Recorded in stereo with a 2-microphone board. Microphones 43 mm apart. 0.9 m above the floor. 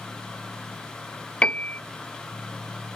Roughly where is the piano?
Left.